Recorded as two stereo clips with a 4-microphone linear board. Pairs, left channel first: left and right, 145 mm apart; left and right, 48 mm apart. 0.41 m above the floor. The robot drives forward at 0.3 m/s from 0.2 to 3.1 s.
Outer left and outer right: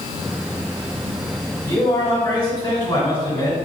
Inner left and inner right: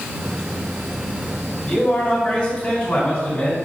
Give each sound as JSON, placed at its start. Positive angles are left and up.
{"t": 1.6, "sound": "a man speaking", "side_deg": 30, "distance_m": 1.8}